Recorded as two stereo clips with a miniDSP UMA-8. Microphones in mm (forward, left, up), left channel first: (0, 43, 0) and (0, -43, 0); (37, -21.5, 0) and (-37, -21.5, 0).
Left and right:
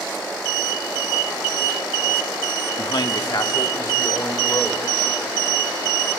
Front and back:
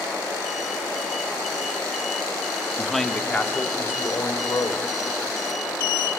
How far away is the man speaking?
About 1.1 m.